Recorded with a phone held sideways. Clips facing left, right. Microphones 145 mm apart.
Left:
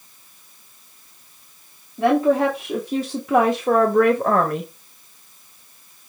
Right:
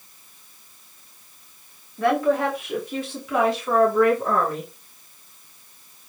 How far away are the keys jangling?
I don't hear keys jangling.